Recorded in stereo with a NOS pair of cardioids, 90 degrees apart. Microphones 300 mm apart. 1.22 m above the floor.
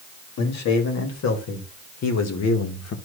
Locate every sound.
0.4 s a man speaking: 65° left, 3 m; by 3.0 s 60° left, 1.6 m